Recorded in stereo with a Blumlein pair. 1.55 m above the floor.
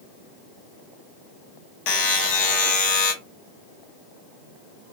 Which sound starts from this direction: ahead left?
A buzzer, at 1.9 s.